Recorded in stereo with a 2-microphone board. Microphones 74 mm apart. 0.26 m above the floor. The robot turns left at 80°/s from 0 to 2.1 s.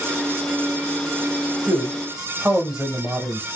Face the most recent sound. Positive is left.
turn(degrees=-10)  # may be behind; listen again after turning